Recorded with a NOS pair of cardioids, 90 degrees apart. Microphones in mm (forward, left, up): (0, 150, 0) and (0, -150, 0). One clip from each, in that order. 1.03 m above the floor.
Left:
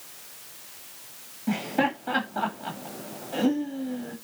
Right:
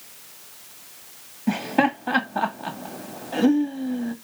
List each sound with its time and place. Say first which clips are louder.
1.5 s laughter: right 4 dB; 35° right, 1.9 m